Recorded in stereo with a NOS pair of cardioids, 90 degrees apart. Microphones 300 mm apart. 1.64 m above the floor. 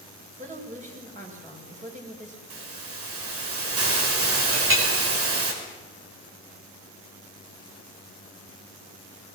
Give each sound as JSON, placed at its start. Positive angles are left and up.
{"t": 0.4, "sound": "a woman speaking", "azimuth_deg": -25, "distance_m": 7.0}
{"t": 2.5, "sound": "a hiss", "azimuth_deg": -50, "distance_m": 5.0}
{"t": 4.5, "sound": "a clink", "azimuth_deg": -45, "distance_m": 5.0}